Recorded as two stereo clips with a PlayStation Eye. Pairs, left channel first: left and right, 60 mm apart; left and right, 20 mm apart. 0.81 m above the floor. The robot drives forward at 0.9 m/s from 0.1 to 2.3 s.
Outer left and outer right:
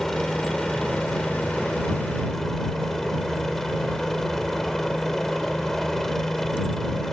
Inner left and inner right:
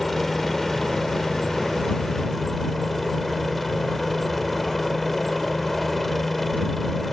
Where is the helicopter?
5° left (ahead or behind).